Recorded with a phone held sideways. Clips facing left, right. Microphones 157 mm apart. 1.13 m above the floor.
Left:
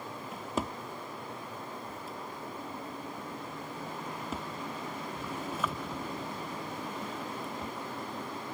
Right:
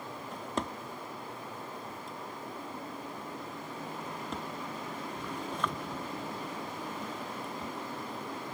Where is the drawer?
5° left (ahead or behind), 0.8 m.